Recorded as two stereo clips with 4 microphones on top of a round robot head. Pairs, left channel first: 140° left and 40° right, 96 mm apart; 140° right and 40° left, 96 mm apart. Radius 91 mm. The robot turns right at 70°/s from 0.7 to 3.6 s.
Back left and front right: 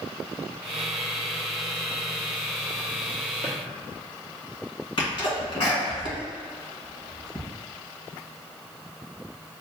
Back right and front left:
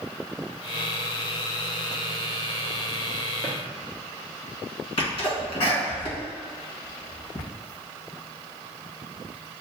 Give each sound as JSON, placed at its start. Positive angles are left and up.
{"t": 3.4, "sound": "a drawer", "azimuth_deg": 130, "distance_m": 0.9}
{"t": 5.0, "sound": "a sneeze", "azimuth_deg": 180, "distance_m": 1.8}